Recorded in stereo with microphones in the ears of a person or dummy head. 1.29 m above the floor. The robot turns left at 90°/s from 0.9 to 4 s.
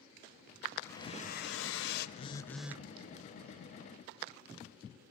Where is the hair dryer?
160° left, 2.5 m; by 2.1 s 55° left, 2.5 m.